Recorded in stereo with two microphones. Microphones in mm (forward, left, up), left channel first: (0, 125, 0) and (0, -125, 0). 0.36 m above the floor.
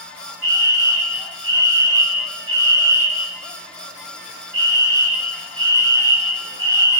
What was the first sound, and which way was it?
A fire alarm, 60° left (ahead or behind).